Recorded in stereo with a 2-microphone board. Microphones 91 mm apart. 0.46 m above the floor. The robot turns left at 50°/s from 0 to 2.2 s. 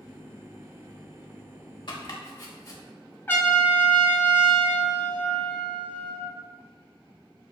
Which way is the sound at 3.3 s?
25° left (ahead or behind).